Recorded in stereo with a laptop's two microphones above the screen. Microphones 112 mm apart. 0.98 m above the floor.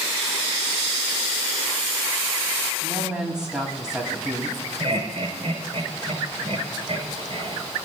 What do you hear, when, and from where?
2.8 s a woman speaking: 5° right (ahead or behind), 7.5 m
4.8 s laughter: 50° right (ahead or behind), 5 m